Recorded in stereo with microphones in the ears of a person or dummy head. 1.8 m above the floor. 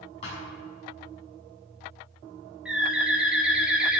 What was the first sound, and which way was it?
A thud, 40° left (ahead or behind).